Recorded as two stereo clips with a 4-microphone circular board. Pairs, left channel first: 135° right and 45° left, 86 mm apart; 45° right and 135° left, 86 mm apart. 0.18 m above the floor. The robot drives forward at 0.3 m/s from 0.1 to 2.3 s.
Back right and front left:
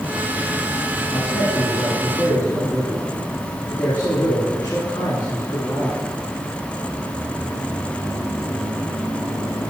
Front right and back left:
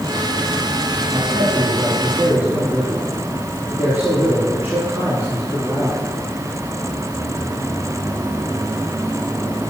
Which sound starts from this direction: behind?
A man speaking, at 1.1 s.